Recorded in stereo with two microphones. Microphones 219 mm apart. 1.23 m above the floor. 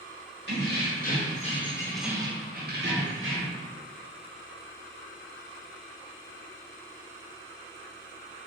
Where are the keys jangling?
50° left (ahead or behind), 1.2 m; by 3.6 s 70° right (ahead or behind), 1.0 m.